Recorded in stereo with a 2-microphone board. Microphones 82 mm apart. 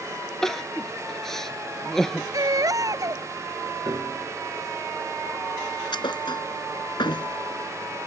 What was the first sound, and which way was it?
Crying, 5° left (ahead or behind).